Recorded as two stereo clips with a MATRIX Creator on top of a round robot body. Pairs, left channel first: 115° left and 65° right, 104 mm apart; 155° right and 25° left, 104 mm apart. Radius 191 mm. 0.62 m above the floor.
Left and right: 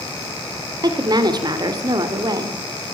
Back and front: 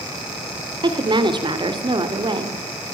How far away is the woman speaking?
About 3 m.